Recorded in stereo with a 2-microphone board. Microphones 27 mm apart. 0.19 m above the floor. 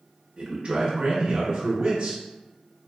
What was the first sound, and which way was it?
A man speaking, 30° right (ahead or behind).